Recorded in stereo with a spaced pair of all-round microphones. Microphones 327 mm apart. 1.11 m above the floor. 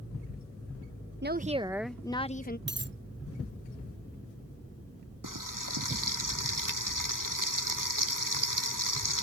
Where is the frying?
85° right.